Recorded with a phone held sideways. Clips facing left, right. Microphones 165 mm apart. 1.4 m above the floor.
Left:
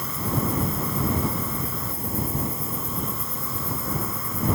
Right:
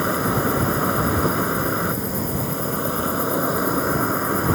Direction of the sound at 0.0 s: 75° right (ahead or behind).